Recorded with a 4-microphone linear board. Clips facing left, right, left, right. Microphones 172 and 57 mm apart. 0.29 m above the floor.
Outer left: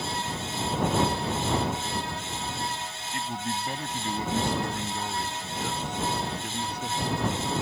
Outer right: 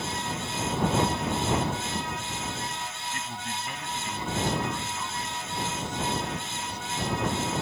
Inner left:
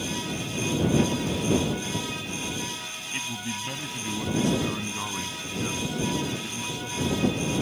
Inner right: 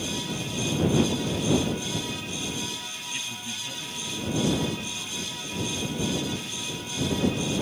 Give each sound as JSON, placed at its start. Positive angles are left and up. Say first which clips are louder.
{"t": 3.1, "sound": "a man speaking", "louder": "outer left 8 dB, inner left 6 dB", "side_deg": 25}